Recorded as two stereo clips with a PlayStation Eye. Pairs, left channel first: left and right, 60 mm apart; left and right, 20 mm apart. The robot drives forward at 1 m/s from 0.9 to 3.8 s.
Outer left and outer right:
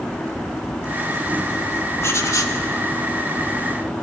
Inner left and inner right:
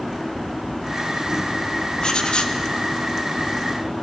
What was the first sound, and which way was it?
Writing, 50° left (ahead or behind).